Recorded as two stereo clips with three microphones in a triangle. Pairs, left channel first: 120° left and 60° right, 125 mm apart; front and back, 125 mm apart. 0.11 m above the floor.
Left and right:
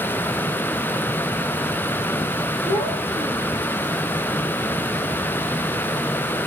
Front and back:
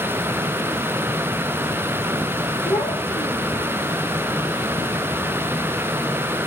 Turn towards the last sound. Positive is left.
turn(degrees=80)